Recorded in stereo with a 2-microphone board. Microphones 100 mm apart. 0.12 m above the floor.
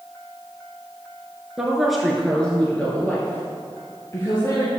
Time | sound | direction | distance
1.6 | a woman speaking | 5° right (ahead or behind) | 1.8 m